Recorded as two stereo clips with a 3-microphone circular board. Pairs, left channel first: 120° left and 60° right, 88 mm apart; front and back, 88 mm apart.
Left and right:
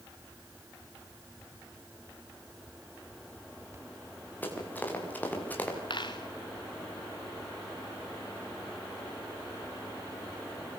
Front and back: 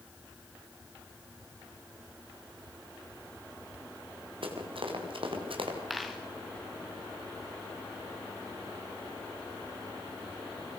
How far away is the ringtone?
I don't hear a ringtone.